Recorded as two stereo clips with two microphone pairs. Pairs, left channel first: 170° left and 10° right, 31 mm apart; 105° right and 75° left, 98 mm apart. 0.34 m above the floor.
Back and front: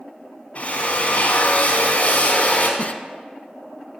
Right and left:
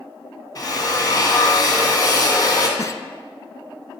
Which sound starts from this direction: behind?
A giggle, at 2.8 s.